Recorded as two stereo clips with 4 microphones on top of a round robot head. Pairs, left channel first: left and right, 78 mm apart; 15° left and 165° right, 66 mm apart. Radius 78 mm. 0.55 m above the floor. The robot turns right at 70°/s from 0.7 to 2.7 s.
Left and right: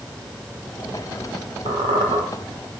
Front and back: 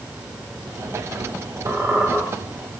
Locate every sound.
1.7 s a squeak: 105° right, 0.7 m; by 2.2 s 70° right, 0.7 m